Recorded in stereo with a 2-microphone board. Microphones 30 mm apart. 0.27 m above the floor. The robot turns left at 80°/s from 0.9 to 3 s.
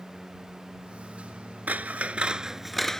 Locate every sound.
1.7 s scissors: 90° right; by 3.0 s 160° left